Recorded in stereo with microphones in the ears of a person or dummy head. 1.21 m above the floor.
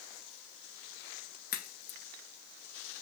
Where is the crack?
45° left (ahead or behind), 1.8 m.